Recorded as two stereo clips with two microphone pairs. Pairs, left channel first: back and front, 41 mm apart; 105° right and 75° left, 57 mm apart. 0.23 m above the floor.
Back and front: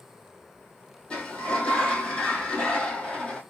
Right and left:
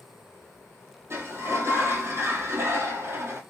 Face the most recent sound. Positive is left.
turn(degrees=115)